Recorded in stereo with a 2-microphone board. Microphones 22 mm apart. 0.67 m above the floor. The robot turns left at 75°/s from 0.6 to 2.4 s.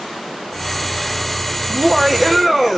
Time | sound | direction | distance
1.7 | laughter | 130° right | 0.9 m